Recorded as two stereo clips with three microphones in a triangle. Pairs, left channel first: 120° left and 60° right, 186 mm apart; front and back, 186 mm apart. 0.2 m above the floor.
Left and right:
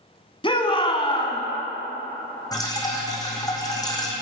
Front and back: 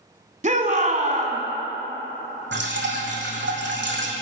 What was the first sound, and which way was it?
A shout, 165° left.